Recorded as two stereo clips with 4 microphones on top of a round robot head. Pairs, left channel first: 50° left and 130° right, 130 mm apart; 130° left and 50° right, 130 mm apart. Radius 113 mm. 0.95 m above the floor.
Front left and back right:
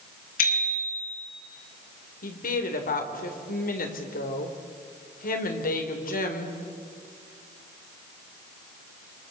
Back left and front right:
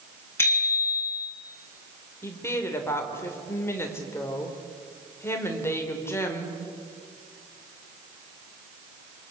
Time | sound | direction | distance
0.4 | a bicycle bell | 55° left | 8 m
2.2 | a woman speaking | 55° left | 3.5 m